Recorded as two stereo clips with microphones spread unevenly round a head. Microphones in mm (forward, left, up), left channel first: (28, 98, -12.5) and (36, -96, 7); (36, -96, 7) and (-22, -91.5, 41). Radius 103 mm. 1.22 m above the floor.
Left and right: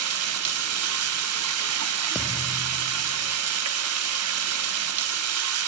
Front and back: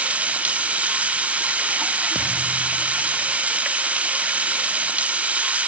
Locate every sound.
0.0 s running water: 110° right, 1.0 m
2.1 s a thud: 170° right, 0.8 m